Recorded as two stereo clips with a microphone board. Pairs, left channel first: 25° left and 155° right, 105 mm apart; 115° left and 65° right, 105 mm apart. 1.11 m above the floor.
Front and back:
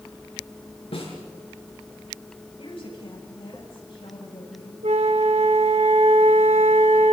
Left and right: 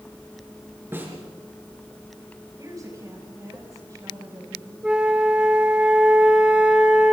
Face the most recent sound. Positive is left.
turn(degrees=-150)